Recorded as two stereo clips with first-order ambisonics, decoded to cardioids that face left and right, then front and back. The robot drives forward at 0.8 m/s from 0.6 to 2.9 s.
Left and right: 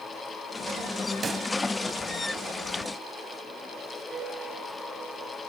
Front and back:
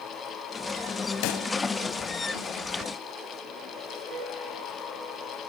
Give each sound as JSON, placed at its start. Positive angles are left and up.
{"t": 1.2, "sound": "a pop", "azimuth_deg": -15, "distance_m": 1.8}
{"t": 4.1, "sound": "a piano", "azimuth_deg": -175, "distance_m": 9.0}